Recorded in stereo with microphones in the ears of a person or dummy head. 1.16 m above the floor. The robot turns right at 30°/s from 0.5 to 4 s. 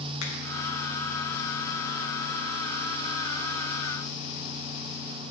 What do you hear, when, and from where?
0.2 s a finger snap: 85° left, 1.5 m